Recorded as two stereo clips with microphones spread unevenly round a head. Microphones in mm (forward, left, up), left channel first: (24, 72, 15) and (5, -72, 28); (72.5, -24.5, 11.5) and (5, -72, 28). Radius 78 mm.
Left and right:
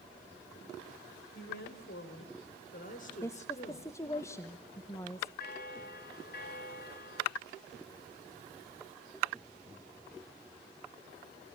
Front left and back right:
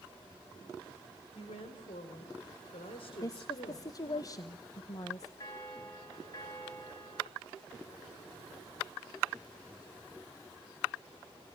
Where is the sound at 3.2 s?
20° left, 1.1 m.